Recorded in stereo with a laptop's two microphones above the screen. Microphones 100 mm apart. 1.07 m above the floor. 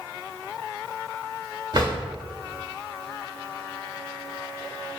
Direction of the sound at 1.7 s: 50° right (ahead or behind).